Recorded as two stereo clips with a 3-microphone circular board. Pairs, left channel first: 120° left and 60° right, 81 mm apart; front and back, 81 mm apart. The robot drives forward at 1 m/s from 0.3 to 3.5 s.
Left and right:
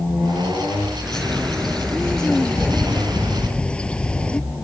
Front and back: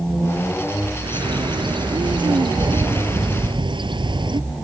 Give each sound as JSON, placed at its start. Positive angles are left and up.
{"t": 1.0, "sound": "a bird", "azimuth_deg": -155}